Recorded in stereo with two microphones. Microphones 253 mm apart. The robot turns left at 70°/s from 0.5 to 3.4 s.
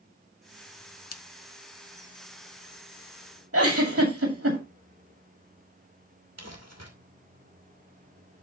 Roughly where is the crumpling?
Right.